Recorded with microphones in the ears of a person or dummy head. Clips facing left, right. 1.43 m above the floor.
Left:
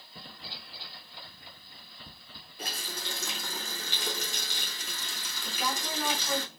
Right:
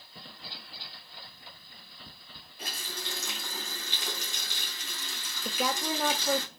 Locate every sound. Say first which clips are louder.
2.6 s a running tap: left 1 dB; 75° left (ahead or behind), 2.5 m
5.5 s a woman speaking: right 4 dB; 50° right (ahead or behind), 0.7 m